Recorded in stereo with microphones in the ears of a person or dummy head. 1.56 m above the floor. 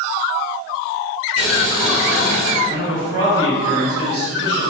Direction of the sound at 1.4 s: 80° right.